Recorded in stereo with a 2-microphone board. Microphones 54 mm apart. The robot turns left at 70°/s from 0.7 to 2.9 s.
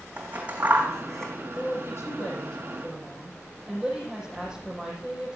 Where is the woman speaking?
80° left, 7 m; by 5.3 s 15° right, 7 m.